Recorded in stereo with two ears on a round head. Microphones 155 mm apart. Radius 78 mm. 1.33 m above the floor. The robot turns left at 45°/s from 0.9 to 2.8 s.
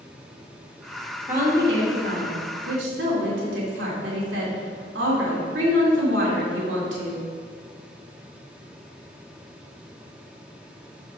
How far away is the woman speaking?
About 2.5 m.